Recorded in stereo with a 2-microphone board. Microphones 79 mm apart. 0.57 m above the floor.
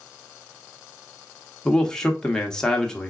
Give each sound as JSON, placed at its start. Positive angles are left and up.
{"t": 1.6, "sound": "a man speaking", "side_deg": 10, "distance_m": 0.8}